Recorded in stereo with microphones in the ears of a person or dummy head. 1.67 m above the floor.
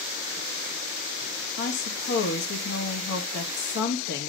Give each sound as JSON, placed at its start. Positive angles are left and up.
{"t": 1.6, "sound": "a woman speaking", "side_deg": 60, "distance_m": 1.4}